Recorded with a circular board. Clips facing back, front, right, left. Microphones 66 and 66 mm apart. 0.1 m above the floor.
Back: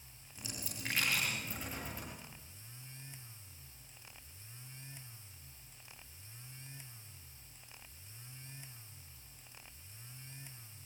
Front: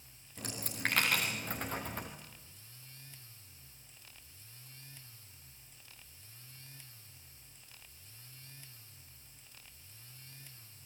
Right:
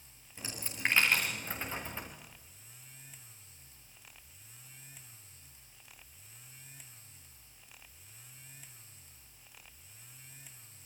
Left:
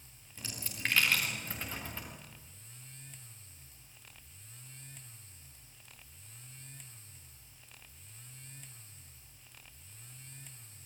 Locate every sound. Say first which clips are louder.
0.4 s a dropped coin: front 8 dB, right 3 dB; 20° right, 6 m